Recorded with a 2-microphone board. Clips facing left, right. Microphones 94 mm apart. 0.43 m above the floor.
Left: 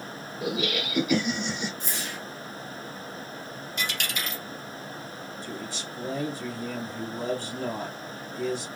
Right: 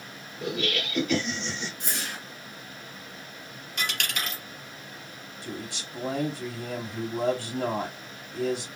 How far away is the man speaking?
About 2.5 m.